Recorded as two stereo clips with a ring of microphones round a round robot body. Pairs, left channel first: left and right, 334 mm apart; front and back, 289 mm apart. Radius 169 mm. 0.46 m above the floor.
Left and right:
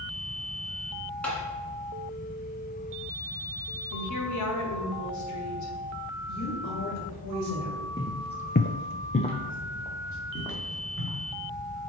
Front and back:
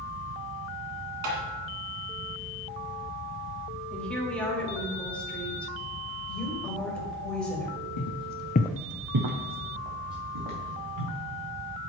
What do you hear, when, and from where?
1.2 s tapping: 175° left, 1.7 m
3.9 s a woman speaking: 85° left, 1.7 m
6.3 s a woman speaking: 90° left, 2 m
8.0 s footsteps: 10° left, 1.2 m; by 11.2 s 175° left, 4 m